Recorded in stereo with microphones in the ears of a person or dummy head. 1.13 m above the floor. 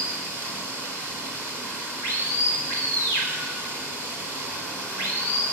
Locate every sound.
0.0 s running water: 10° right (ahead or behind), 3.5 m